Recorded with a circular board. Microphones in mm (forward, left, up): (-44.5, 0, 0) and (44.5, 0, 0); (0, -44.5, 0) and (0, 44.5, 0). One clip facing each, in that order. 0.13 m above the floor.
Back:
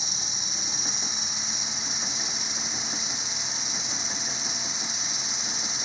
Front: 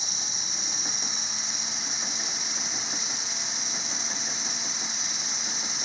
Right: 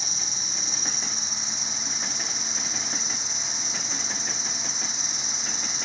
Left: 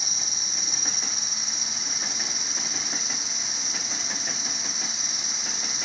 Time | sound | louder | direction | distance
0.0 | an insect | back 1 dB, right 1 dB | 155° left | 1.5 m